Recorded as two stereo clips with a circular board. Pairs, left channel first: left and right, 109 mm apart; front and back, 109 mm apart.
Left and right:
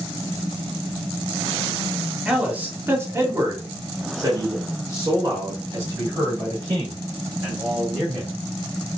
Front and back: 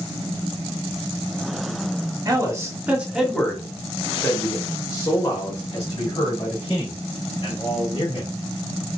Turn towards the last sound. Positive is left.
turn(degrees=-35)